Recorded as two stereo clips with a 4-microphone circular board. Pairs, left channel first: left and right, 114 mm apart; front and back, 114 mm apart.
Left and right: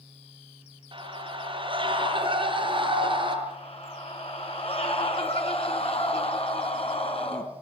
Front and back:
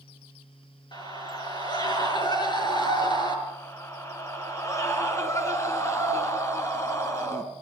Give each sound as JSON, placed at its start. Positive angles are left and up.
{"t": 0.9, "sound": "a scream", "azimuth_deg": -50, "distance_m": 6.5}
{"t": 3.5, "sound": "a scream", "azimuth_deg": 65, "distance_m": 3.0}